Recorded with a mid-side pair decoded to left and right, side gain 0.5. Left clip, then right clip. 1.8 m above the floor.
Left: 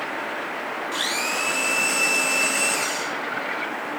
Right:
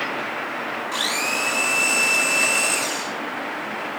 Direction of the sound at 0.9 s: 15° right.